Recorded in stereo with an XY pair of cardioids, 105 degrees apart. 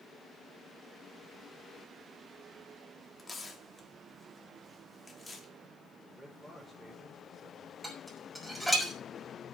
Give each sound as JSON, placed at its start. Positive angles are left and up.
{"t": 3.2, "sound": "tearing paper", "azimuth_deg": 20, "distance_m": 2.5}
{"t": 6.0, "sound": "a man speaking", "azimuth_deg": -10, "distance_m": 6.0}
{"t": 7.8, "sound": "dishes clattering", "azimuth_deg": -5, "distance_m": 6.0}